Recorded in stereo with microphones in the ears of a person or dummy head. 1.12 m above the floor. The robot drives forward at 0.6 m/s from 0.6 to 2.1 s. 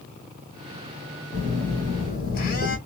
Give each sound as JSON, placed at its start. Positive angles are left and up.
{"t": 1.3, "sound": "a phone buzzing", "side_deg": 40, "distance_m": 2.5}